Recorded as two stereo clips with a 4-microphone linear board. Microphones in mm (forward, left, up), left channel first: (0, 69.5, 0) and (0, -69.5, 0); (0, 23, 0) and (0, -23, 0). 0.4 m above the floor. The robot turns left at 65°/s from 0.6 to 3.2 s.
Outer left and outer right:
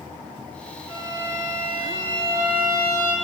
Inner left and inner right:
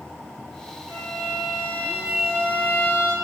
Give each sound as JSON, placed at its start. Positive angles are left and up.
{"t": 0.9, "sound": "a violin", "azimuth_deg": -90, "distance_m": 1.7}